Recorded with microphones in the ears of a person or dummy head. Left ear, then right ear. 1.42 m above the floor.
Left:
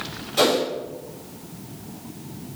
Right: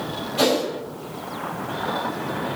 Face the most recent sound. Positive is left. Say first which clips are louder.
# left 1 dB
turn(degrees=70)  # may be behind; listen again after turning